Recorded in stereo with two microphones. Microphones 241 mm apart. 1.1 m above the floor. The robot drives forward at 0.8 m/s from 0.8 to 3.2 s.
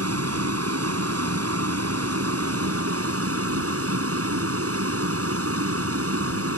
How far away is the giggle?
No giggle in this recording.